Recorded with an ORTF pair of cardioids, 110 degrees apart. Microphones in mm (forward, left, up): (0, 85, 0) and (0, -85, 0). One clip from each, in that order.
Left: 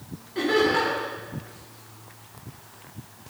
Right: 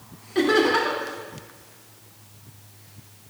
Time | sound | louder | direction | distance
0.3 | laughter | right 2 dB | 45° right | 3 m